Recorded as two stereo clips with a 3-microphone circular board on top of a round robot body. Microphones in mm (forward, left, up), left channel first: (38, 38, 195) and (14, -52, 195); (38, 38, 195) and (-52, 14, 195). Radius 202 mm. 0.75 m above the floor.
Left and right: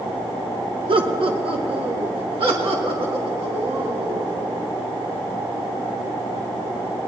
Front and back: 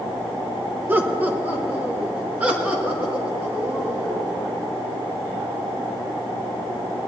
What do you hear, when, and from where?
0.9 s laughter: 95° right, 1.1 m; by 4.3 s 85° right, 2.5 m